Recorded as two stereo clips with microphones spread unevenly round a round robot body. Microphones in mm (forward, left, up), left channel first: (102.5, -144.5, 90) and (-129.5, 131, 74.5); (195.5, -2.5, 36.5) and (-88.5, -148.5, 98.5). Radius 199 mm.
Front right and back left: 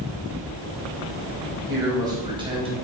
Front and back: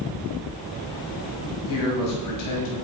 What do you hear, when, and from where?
1.7 s a man speaking: 50° left, 5.5 m; by 2.7 s 55° left, 5 m